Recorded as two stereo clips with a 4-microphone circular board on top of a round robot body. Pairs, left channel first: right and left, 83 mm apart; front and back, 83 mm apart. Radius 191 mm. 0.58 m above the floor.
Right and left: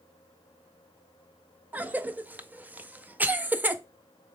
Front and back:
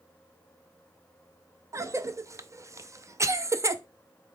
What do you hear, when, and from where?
1.7 s a cough: 150° left, 0.7 m